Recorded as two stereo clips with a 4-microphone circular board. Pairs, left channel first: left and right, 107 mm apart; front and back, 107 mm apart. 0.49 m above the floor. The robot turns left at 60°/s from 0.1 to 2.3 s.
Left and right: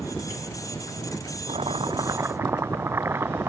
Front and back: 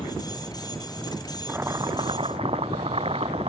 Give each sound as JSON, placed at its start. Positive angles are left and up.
{"t": 1.5, "sound": "boiling", "azimuth_deg": -110}